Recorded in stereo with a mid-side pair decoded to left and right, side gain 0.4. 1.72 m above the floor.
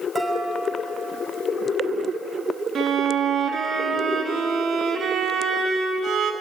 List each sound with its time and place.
0.1 s dishes clattering: 25° right, 5.5 m
2.8 s a violin: 65° right, 2.5 m